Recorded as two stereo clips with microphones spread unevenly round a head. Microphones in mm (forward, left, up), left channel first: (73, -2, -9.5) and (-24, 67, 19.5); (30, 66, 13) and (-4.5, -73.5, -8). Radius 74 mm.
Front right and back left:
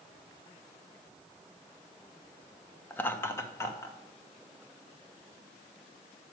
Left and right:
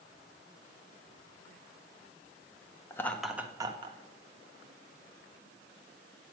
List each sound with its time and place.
2.9 s laughter: 5° left, 0.9 m; by 4.0 s 85° right, 1.0 m